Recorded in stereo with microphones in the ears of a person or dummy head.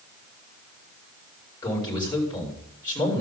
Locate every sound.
1.6 s a man speaking: 20° left (ahead or behind), 5.5 m